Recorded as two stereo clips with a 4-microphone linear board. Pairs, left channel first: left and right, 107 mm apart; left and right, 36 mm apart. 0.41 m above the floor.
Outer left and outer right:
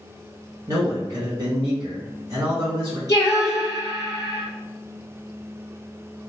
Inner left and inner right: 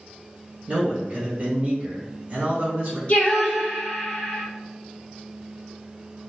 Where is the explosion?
I don't hear an explosion.